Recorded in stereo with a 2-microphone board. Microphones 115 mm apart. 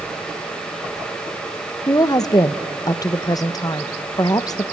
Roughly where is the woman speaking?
Left.